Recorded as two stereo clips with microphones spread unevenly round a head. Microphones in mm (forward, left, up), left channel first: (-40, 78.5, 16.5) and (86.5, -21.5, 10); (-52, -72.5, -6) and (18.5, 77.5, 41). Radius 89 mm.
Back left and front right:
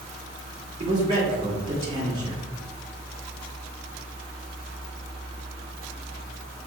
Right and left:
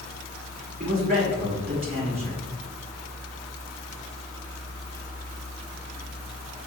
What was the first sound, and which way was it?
A man speaking, 5° left.